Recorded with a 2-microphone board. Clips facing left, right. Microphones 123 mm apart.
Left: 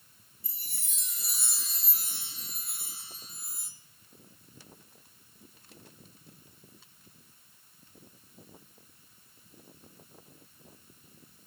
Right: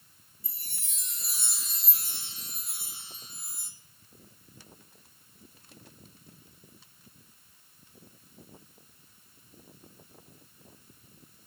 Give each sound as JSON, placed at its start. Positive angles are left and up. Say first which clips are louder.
{"t": 0.4, "sound": "a chime", "louder": "even", "side_deg": 0, "distance_m": 1.7}